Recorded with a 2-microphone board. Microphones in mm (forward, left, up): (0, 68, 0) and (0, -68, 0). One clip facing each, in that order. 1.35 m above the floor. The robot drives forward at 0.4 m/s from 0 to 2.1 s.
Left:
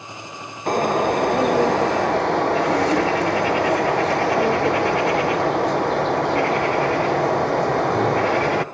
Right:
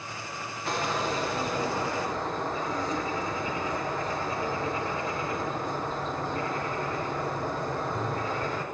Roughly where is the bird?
Left.